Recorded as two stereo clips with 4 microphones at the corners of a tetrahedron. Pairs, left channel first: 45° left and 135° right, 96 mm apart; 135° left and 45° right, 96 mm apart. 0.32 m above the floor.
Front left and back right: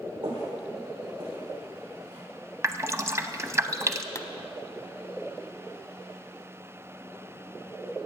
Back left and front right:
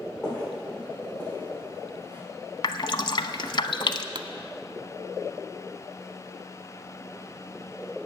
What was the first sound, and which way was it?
Footsteps, 145° right.